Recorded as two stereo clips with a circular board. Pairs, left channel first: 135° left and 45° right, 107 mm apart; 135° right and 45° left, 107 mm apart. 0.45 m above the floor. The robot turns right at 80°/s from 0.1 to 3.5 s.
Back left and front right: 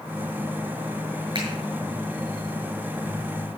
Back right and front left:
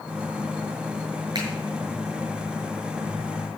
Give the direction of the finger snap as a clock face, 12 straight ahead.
12 o'clock.